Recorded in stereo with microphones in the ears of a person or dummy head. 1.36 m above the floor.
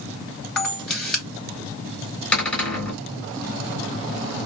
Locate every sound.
0.6 s a camera shutter: 5° left (ahead or behind), 2.5 m
2.3 s a cupboard door: 5° left (ahead or behind), 3 m